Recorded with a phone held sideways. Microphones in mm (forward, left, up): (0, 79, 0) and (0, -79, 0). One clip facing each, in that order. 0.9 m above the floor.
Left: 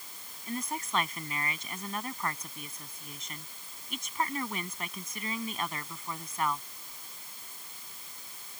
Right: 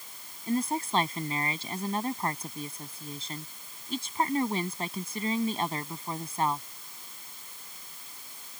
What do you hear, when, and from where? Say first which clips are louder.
0.5 s a woman speaking: right 7 dB; 30° right (ahead or behind)